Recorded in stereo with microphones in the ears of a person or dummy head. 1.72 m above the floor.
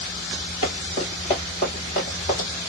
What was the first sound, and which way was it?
Running footsteps, 20° left (ahead or behind).